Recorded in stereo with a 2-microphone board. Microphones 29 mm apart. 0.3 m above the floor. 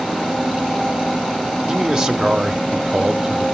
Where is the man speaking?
25° right (ahead or behind), 0.9 m.